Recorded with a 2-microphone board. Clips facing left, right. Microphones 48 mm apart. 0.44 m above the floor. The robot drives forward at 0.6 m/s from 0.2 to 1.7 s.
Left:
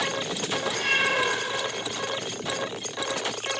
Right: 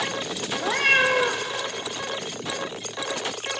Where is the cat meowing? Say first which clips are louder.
Right 6 dB; 60° right (ahead or behind), 1.4 m; by 1.5 s 70° right (ahead or behind), 1.3 m.